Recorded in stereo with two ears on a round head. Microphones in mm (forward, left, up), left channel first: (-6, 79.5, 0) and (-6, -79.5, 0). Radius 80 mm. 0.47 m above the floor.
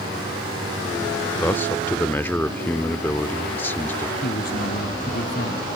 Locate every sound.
1.4 s a man speaking: 10° left (ahead or behind)
4.2 s a man speaking: 55° left (ahead or behind)